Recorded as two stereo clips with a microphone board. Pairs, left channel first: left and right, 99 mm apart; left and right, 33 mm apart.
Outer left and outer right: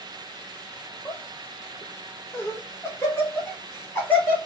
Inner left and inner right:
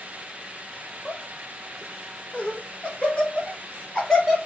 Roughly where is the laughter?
Left.